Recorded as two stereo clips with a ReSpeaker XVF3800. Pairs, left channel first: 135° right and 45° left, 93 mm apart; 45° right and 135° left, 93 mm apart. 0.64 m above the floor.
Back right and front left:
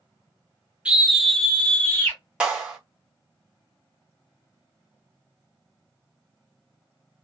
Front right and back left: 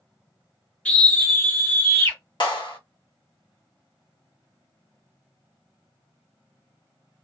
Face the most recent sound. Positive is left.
turn(degrees=-30)